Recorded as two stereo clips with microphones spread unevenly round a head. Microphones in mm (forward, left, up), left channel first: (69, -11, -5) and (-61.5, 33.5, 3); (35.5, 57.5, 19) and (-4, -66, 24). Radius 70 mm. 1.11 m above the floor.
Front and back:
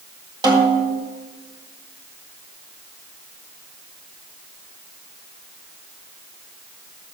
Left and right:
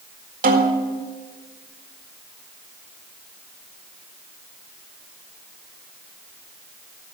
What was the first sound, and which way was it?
A snare drum, 135° right.